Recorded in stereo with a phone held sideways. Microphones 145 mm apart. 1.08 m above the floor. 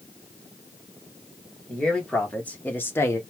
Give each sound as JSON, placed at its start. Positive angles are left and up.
{"t": 1.7, "sound": "a man speaking", "side_deg": 5, "distance_m": 1.3}